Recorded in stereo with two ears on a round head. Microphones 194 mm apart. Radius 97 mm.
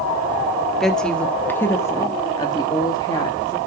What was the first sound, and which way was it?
A woman speaking, centre (ahead or behind).